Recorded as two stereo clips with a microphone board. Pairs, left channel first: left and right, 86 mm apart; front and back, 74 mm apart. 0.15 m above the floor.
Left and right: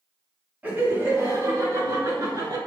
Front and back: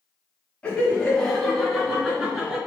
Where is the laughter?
50° right, 1.6 m; by 2.6 s 100° right, 2.5 m.